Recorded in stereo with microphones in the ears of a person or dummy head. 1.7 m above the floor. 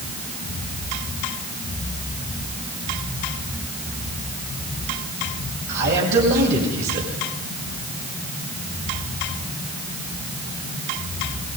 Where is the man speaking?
65° right (ahead or behind), 8.5 m.